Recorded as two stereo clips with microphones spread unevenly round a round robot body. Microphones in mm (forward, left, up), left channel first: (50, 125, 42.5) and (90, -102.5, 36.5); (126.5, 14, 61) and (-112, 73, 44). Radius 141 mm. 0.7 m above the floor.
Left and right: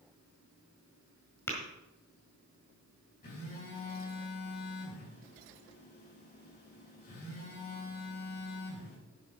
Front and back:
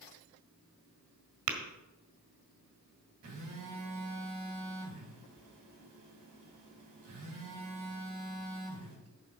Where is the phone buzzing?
165° left, 5 m.